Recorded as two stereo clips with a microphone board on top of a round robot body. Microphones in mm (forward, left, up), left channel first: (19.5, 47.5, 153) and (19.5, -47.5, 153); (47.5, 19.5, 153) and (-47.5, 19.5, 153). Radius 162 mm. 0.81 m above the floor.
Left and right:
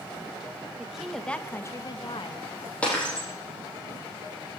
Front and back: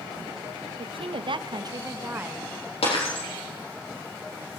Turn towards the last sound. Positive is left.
turn(degrees=15)